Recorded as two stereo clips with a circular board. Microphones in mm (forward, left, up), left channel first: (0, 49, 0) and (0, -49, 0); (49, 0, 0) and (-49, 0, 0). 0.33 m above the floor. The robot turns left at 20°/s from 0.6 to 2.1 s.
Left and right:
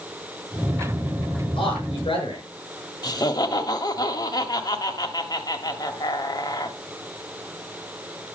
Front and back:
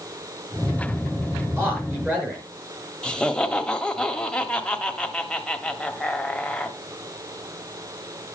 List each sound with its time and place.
1.6 s a man speaking: 115° left, 5.5 m; by 2.4 s 105° left, 5.5 m
3.0 s laughter: 75° left, 1.4 m